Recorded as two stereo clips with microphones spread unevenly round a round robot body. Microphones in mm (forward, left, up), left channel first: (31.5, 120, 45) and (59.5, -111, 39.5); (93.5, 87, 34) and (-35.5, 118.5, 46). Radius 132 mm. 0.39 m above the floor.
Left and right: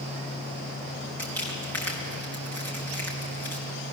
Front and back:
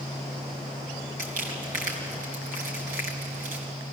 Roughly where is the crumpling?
Behind.